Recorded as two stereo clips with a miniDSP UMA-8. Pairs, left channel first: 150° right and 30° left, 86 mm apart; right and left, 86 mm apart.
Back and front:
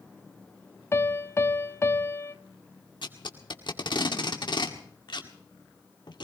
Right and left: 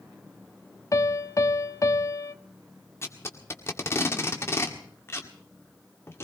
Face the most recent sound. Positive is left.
turn(degrees=-145)